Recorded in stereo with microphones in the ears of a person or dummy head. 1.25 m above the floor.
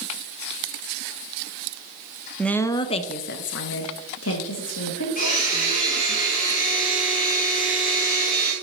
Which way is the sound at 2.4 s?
5° left (ahead or behind).